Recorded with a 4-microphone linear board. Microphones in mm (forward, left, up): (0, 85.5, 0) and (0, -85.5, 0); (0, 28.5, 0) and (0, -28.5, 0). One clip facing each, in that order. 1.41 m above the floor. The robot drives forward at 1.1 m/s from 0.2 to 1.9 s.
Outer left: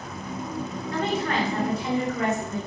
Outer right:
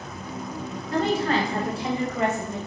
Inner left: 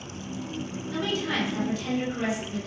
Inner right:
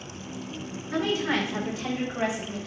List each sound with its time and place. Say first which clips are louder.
0.9 s a woman speaking: outer right 4 dB, inner right 3 dB; 35° right (ahead or behind), 4 m; by 2.6 s 25° right (ahead or behind), 5 m